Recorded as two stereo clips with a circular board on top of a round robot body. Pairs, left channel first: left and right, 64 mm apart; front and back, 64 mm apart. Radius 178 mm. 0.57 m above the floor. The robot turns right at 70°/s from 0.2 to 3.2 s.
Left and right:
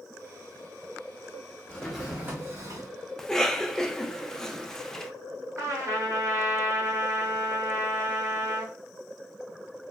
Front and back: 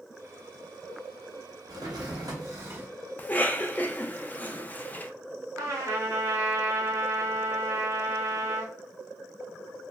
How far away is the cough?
About 0.6 m.